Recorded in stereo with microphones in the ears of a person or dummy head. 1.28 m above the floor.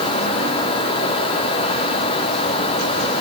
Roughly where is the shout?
No shout in this recording.